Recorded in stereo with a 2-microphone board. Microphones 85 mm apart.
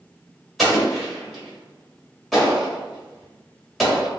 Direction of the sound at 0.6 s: Centre (ahead or behind).